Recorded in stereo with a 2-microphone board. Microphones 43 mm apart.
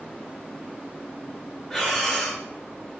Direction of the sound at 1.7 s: 5° right (ahead or behind).